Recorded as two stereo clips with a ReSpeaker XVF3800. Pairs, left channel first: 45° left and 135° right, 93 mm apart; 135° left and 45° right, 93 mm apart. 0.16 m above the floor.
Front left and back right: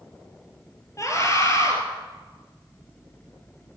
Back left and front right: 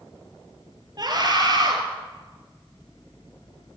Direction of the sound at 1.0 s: 5° right.